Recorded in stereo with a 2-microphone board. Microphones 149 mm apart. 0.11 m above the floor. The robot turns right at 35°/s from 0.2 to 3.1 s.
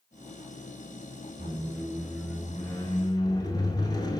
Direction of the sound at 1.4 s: 20° right.